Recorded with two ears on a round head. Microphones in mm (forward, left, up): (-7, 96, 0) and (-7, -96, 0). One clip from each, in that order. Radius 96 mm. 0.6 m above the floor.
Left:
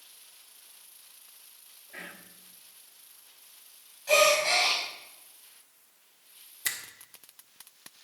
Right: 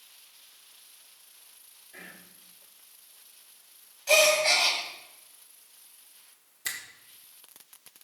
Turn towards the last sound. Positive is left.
turn(degrees=10)  # may be behind; listen again after turning